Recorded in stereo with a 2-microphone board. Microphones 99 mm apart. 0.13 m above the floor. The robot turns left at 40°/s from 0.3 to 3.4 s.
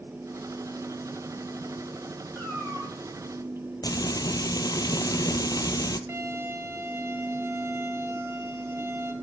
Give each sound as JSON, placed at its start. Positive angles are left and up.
{"t": 2.4, "sound": "a cat meowing", "side_deg": 0, "distance_m": 3.5}
{"t": 3.8, "sound": "frying", "side_deg": 40, "distance_m": 0.8}
{"t": 6.1, "sound": "a violin", "side_deg": -25, "distance_m": 1.2}